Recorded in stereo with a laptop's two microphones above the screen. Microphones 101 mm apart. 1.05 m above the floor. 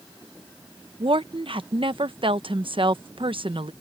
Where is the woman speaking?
60° right (ahead or behind).